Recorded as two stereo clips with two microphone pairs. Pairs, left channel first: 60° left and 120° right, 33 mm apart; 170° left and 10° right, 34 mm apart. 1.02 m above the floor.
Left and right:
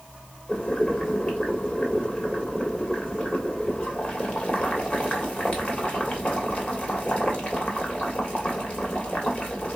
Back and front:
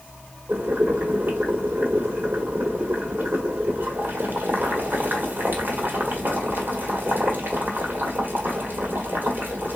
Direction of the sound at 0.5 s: 15° left.